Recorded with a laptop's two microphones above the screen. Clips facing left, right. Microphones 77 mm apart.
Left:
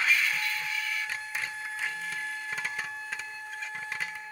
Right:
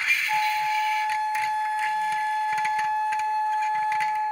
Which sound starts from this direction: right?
A flute, at 0.3 s.